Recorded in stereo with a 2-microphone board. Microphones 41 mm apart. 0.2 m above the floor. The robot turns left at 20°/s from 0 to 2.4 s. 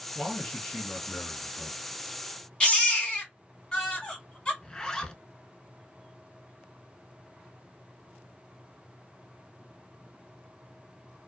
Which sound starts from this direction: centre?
A zipper, at 4.6 s.